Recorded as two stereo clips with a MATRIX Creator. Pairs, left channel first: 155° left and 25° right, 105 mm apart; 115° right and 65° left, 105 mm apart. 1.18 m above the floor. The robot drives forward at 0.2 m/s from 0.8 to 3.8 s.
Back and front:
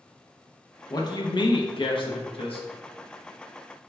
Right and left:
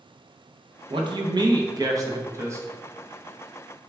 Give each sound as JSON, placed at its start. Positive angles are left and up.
{"t": 0.9, "sound": "a man speaking", "azimuth_deg": 105, "distance_m": 0.6}